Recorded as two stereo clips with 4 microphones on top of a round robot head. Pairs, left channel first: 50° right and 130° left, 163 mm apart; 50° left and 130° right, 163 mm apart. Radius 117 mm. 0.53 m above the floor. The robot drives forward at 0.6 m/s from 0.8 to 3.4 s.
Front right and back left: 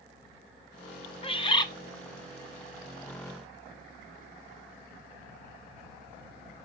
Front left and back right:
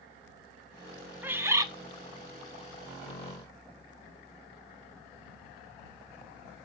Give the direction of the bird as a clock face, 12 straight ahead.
2 o'clock.